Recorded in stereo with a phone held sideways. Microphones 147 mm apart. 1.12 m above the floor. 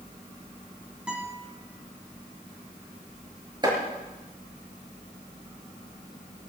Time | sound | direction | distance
1.1 | a guitar | 5° right (ahead or behind) | 5 m
3.6 | chopping | 30° right (ahead or behind) | 6 m